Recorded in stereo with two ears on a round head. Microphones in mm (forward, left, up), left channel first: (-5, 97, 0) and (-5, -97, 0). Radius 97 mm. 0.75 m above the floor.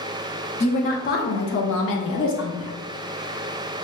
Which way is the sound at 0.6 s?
30° left (ahead or behind).